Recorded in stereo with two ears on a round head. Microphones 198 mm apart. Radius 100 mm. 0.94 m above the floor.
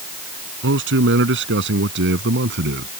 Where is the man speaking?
60° right (ahead or behind); by 2.9 s 55° right (ahead or behind).